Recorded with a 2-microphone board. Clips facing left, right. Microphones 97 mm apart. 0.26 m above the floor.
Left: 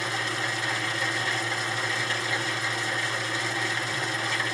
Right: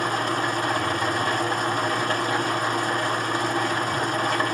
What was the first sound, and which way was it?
An engine running, 50° right (ahead or behind).